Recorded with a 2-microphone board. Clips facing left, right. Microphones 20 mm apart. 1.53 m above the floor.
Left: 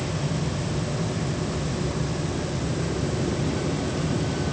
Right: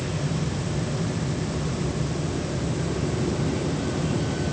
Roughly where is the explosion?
No explosion in this recording.